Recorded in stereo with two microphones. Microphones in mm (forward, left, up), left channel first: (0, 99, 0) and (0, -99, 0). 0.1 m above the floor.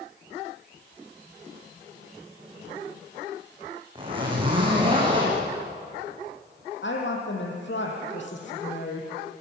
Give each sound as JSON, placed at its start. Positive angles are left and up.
{"t": 4.0, "sound": "a zipper", "side_deg": -25, "distance_m": 6.5}
{"t": 6.8, "sound": "a woman speaking", "side_deg": 70, "distance_m": 4.5}